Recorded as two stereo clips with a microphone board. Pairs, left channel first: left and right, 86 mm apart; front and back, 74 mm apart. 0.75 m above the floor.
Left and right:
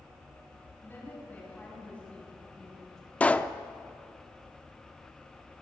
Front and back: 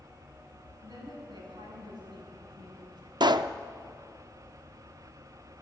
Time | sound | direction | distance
0.8 | a woman speaking | 160° left | 8 m
3.2 | a pop | 165° left | 0.6 m